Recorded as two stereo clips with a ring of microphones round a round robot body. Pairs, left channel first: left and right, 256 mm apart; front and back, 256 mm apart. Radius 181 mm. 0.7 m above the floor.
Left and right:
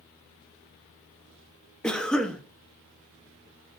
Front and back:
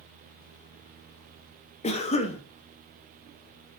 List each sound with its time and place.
1.8 s a cough: 5° left, 0.5 m